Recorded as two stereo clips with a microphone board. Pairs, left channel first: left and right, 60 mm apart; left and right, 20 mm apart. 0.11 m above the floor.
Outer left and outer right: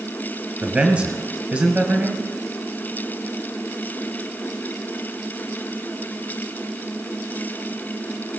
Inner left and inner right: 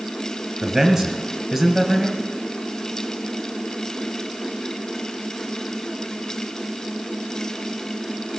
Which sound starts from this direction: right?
A man speaking, at 0.6 s.